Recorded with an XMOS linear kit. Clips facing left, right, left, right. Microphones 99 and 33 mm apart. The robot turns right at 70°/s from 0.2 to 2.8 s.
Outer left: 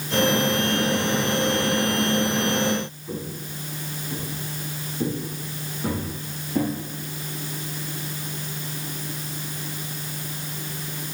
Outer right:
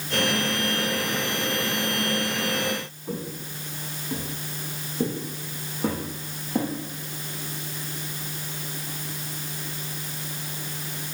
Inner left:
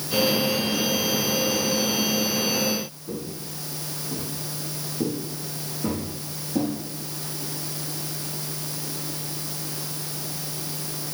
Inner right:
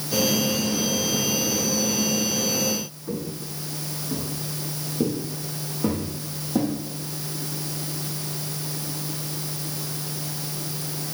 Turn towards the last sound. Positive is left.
turn(degrees=-35)  # may be behind; listen again after turning